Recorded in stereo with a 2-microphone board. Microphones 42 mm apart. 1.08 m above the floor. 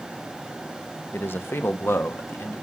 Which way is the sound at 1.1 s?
55° left (ahead or behind).